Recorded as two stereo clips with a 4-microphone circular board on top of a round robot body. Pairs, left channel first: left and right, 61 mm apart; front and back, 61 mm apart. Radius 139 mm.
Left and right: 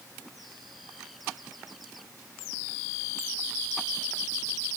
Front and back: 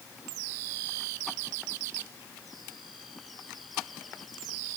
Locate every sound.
Only background noise.